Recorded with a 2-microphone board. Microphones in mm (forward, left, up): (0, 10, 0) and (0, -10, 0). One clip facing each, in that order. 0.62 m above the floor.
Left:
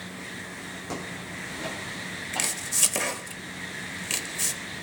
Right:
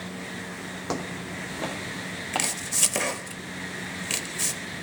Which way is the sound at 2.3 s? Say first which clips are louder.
Right 1 dB; 10° right (ahead or behind).